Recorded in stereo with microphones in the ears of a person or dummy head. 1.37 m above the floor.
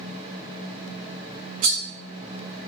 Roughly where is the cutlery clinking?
Right.